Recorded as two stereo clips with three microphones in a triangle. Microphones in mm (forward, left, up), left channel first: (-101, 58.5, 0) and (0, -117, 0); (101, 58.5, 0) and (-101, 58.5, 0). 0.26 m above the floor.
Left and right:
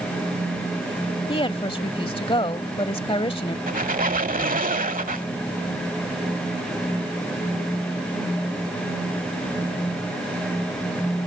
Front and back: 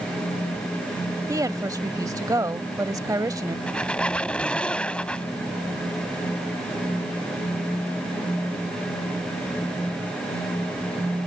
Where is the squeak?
80° right.